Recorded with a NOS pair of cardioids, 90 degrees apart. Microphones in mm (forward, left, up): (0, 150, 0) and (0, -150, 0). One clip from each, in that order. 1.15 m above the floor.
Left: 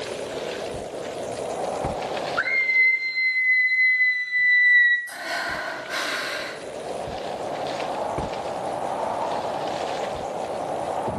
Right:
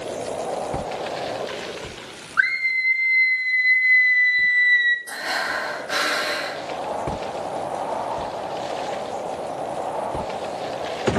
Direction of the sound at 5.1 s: 70° right.